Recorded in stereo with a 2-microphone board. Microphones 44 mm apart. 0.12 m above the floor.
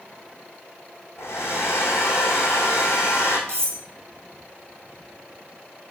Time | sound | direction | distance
1.2 | a hair dryer | 70° left (ahead or behind) | 2 m
3.5 | cutlery clinking | 75° right (ahead or behind) | 3 m